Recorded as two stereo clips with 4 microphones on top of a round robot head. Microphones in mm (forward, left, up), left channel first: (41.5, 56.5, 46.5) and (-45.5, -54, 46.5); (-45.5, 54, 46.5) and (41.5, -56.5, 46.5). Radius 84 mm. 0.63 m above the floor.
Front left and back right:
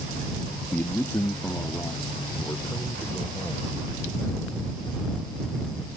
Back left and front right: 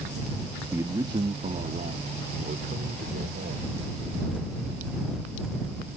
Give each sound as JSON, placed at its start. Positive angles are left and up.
{"t": 0.7, "sound": "a man speaking", "azimuth_deg": 0}